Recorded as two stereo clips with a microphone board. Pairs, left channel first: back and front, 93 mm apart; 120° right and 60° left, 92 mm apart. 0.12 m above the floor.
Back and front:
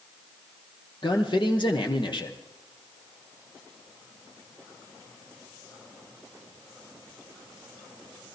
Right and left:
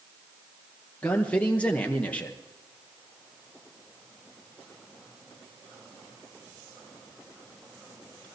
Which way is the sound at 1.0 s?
165° left.